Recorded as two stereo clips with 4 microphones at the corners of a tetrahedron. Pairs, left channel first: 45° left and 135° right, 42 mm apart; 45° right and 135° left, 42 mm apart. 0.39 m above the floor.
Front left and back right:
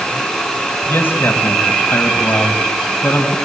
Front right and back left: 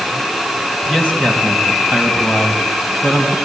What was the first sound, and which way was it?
A man speaking, 20° left.